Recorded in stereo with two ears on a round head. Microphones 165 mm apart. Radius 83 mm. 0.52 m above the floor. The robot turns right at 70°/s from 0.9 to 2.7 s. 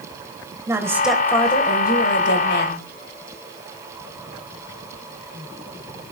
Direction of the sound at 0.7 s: 15° right.